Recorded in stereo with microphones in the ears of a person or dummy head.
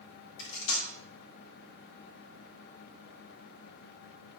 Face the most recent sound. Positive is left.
turn(degrees=80)